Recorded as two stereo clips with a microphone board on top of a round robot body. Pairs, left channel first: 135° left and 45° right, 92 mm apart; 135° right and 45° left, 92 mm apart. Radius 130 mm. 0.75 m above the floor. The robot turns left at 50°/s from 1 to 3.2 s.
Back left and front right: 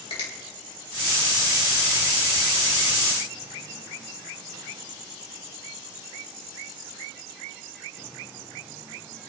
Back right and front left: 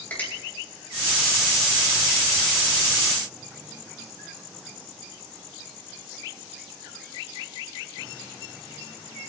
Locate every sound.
0.1 s a finger snap: 155° left, 3.5 m